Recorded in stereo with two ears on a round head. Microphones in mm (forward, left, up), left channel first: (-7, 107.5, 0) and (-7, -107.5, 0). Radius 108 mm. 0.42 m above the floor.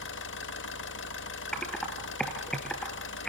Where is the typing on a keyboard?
5° left (ahead or behind), 1.9 m.